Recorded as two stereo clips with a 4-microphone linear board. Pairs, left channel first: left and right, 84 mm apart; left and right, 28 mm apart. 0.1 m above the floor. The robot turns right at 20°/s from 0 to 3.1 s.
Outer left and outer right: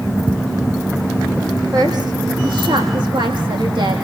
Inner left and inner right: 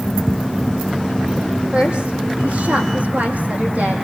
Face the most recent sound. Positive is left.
turn(degrees=-70)  # may be behind; listen again after turning